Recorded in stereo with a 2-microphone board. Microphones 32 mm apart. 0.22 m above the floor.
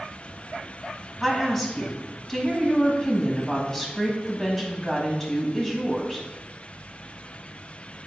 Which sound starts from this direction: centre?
A woman speaking, at 1.2 s.